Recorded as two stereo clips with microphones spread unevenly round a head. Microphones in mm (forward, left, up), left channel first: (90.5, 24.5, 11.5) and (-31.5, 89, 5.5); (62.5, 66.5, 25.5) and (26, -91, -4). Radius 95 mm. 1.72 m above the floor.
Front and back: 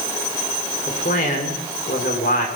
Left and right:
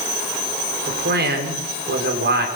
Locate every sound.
0.9 s a man speaking: 80° right, 6 m